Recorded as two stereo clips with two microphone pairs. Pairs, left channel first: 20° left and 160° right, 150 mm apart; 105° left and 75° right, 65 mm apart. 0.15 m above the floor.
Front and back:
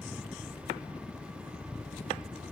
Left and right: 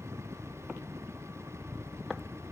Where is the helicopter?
45° right; by 2.5 s 35° right.